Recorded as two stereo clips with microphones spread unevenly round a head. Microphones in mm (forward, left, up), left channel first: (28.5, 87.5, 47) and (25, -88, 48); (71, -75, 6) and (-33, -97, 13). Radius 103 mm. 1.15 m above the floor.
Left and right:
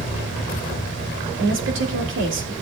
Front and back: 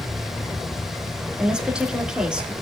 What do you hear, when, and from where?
1.4 s a woman speaking: 85° right, 2.5 m